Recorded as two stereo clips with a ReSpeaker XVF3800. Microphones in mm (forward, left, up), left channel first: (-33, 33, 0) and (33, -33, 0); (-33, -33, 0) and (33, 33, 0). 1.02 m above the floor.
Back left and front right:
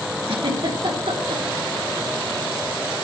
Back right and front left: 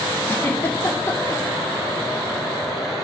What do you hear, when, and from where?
0.3 s a giggle: 70° right, 2 m